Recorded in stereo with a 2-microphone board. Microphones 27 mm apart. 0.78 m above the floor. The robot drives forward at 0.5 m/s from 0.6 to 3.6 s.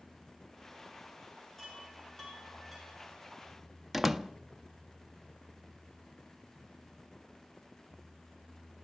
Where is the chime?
5° left (ahead or behind), 6.5 m.